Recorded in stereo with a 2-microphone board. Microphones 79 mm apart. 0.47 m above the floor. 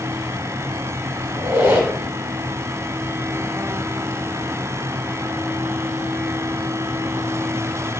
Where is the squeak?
25° right (ahead or behind), 1.0 m.